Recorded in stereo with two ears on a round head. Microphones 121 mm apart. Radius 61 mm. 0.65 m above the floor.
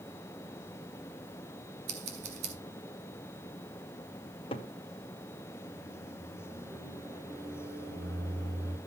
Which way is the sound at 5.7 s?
25° right (ahead or behind).